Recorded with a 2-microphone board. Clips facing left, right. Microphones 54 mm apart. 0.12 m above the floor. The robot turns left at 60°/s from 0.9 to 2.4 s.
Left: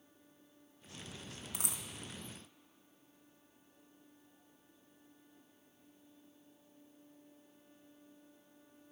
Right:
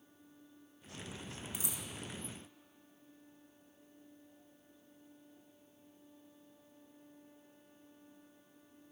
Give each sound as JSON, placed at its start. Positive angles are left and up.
{"t": 1.5, "sound": "a dropped coin", "side_deg": 75, "distance_m": 0.7}